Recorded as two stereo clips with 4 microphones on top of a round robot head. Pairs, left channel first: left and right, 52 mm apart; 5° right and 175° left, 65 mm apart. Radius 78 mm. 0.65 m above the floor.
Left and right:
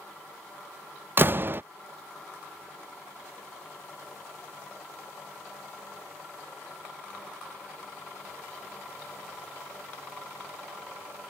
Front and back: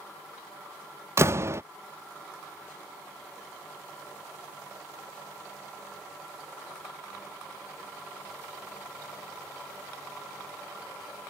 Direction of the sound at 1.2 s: 140° right.